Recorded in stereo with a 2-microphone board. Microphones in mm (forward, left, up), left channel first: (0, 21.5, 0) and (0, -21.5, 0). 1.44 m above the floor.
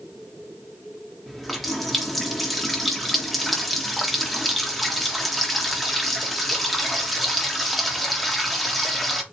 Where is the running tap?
Centre (ahead or behind), 1.0 m.